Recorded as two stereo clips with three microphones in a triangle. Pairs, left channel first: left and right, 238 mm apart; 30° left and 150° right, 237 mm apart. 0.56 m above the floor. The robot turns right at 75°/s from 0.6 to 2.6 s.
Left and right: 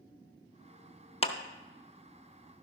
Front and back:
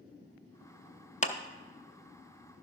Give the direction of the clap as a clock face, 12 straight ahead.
10 o'clock.